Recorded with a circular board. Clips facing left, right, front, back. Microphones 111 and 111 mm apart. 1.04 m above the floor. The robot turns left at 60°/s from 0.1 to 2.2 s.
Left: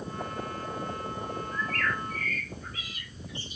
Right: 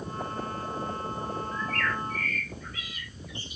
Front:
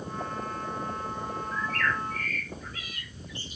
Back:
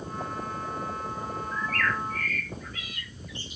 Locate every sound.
1.5 s a bird: 80° left, 1.2 m; by 3.6 s 40° left, 1.2 m